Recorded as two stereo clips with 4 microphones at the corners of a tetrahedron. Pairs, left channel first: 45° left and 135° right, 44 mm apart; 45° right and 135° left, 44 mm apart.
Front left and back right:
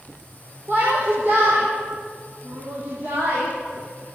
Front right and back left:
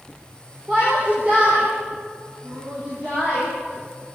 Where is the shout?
175° right, 8.5 m; by 4.2 s straight behind, 11.5 m.